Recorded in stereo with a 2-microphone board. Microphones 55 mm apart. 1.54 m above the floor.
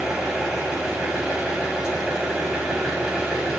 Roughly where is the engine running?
Centre.